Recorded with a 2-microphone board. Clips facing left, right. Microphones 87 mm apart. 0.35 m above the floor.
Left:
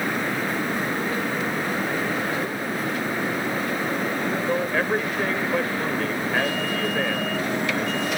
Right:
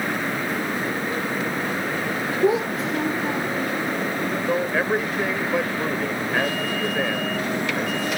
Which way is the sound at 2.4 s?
85° right.